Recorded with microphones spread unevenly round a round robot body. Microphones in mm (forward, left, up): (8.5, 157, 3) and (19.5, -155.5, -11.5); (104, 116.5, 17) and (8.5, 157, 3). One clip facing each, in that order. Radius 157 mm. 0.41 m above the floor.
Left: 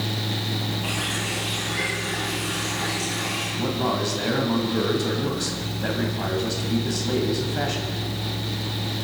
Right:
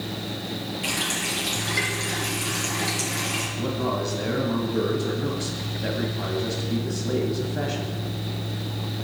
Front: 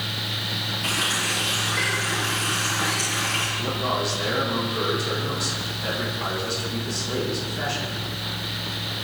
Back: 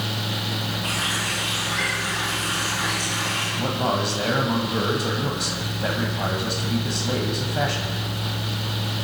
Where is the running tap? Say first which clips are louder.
Left 1 dB, even; 80° right, 5.5 m.